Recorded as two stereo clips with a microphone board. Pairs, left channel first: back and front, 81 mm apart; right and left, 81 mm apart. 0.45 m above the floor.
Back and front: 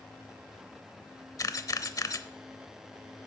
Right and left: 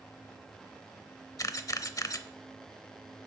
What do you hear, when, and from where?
1.4 s a camera shutter: 135° right, 0.6 m